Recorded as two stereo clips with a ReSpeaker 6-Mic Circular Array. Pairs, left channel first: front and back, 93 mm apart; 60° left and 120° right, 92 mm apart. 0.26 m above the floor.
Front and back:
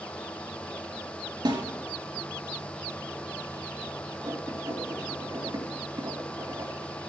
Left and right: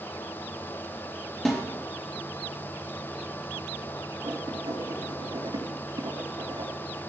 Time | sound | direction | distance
1.4 | a snare drum | 145° left | 5 m
4.2 | writing | 140° right | 4.5 m